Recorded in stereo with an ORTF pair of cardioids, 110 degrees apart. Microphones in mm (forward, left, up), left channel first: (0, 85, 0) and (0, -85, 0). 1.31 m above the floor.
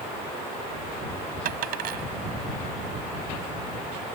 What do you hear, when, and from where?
1.4 s a dropped coin: 65° right